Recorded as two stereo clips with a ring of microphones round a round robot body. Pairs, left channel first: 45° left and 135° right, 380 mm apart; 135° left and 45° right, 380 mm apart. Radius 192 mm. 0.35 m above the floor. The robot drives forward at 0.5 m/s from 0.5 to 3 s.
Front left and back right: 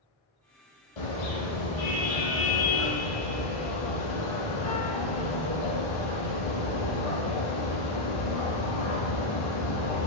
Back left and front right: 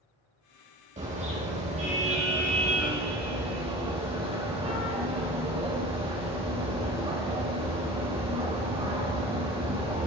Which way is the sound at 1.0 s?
30° left.